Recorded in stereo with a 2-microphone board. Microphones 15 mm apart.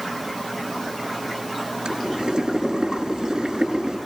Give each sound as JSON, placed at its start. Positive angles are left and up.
{"t": 1.9, "sound": "boiling", "side_deg": -65, "distance_m": 8.5}